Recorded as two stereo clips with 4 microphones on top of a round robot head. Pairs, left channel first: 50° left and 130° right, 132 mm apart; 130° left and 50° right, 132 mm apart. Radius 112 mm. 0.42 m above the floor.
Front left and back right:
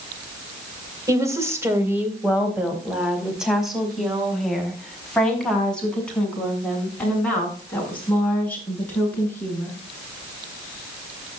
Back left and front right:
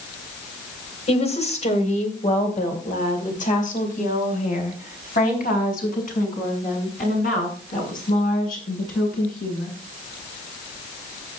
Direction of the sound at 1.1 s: 165° left.